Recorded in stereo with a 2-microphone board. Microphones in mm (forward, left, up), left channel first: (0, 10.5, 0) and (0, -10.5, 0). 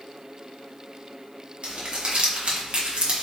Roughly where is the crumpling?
Right.